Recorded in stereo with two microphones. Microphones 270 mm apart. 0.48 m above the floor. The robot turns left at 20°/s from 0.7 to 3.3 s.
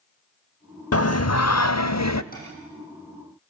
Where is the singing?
60° left (ahead or behind), 0.6 m; by 2.2 s 80° left, 0.6 m.